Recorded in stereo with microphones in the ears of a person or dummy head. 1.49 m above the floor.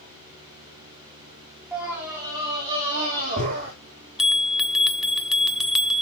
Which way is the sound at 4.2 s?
5° right (ahead or behind).